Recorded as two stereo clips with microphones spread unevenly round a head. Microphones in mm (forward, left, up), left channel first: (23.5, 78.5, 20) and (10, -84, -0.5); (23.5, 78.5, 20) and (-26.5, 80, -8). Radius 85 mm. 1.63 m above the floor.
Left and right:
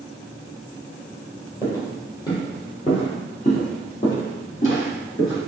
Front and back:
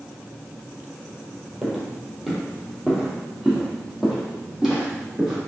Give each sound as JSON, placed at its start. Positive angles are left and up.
{"t": 1.6, "sound": "footsteps", "azimuth_deg": 40, "distance_m": 1.8}